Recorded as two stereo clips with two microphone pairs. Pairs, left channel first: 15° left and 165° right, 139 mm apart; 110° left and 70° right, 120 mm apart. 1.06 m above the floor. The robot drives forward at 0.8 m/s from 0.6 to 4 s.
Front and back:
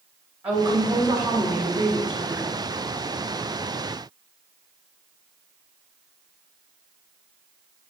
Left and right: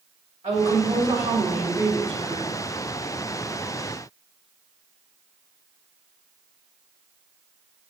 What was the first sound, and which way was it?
A woman speaking, 85° right.